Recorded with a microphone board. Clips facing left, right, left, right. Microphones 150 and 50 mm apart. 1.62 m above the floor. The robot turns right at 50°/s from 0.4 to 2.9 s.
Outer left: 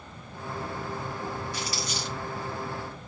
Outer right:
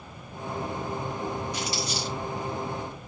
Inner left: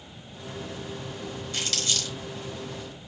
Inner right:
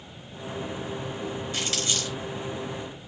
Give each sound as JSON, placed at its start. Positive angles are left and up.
{"t": 1.5, "sound": "crumpling", "side_deg": -20, "distance_m": 3.0}